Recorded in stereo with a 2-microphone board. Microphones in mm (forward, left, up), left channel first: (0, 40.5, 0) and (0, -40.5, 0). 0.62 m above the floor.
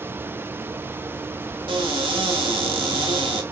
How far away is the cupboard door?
About 1.5 m.